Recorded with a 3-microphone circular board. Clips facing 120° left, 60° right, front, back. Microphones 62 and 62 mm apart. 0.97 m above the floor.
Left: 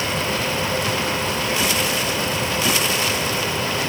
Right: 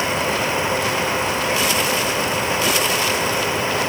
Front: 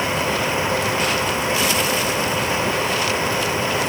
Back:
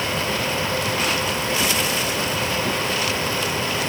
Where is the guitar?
No guitar in this recording.